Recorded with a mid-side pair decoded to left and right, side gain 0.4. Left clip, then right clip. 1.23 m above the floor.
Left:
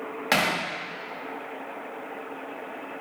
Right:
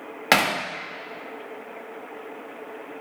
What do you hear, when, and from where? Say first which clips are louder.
0.3 s hammering: right 4 dB; 50° right, 0.6 m